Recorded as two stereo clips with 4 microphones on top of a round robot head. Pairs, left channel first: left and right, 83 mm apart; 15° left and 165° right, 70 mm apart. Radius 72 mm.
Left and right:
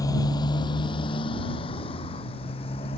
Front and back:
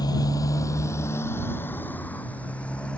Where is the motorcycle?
45° left; by 3.0 s 90° left.